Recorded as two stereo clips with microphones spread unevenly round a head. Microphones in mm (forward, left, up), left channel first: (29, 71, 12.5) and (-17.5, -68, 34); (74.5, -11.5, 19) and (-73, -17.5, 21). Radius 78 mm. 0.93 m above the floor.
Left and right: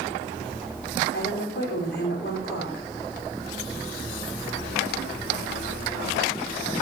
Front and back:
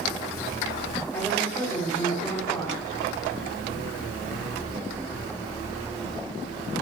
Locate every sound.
1.1 s a woman speaking: 80° left, 3.5 m